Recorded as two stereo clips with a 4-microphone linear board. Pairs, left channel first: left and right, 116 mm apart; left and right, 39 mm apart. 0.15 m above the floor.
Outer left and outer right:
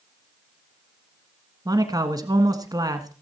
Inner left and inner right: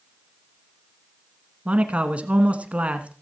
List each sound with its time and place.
1.6 s a man speaking: 35° right (ahead or behind), 1.3 m